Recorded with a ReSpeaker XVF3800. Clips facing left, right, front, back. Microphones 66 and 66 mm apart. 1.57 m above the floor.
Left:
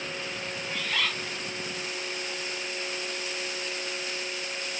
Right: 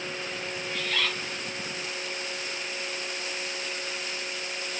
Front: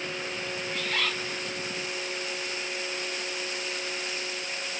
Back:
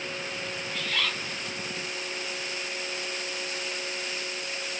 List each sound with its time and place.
0.7 s a bird: 15° left, 1.4 m